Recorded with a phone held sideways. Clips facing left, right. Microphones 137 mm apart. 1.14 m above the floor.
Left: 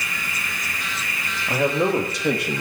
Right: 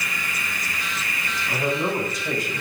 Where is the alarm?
I don't hear an alarm.